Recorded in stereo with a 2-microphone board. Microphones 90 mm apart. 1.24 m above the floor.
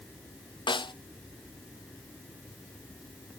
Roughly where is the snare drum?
Left.